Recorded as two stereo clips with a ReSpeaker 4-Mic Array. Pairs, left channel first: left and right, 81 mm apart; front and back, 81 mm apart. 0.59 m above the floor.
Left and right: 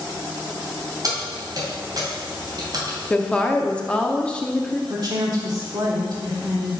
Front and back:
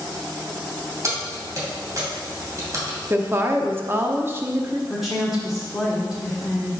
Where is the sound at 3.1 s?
155° left, 0.8 m.